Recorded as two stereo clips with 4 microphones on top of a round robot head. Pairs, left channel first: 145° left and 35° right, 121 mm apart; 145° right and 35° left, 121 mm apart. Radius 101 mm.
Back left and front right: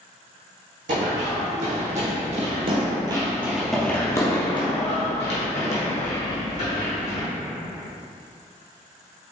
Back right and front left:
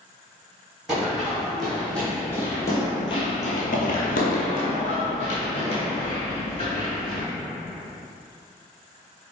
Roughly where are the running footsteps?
Ahead right.